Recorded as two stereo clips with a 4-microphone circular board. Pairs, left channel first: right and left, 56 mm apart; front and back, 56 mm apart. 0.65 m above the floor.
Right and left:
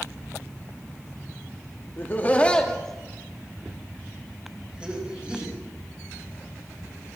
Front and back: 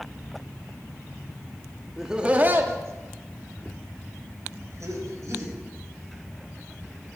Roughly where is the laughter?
Right.